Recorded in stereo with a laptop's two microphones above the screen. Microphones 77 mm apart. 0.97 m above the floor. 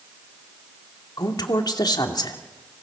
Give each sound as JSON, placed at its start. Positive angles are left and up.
{"t": 1.2, "sound": "a woman speaking", "side_deg": 60, "distance_m": 2.5}